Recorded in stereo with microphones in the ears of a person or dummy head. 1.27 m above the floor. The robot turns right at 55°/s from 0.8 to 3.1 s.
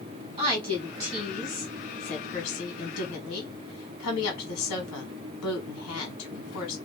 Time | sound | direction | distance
0.4 | a woman speaking | 30° right | 1.3 m